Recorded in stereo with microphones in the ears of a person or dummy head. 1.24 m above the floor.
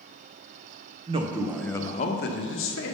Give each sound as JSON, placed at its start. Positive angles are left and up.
{"t": 1.1, "sound": "a man speaking", "side_deg": -30, "distance_m": 0.7}